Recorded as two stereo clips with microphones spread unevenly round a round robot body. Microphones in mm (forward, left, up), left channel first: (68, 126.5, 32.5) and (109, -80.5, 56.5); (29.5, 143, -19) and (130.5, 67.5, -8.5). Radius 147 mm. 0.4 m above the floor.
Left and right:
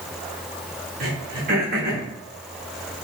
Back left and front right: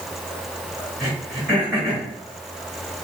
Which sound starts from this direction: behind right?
Throat clearing, at 1.0 s.